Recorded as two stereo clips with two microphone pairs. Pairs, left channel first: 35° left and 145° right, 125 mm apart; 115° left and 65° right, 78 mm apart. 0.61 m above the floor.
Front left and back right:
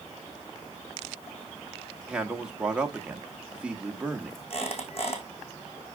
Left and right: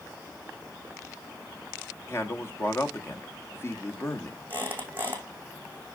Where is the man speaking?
140° left, 1.2 m.